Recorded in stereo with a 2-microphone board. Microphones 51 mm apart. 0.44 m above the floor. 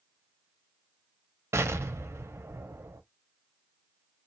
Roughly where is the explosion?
Right.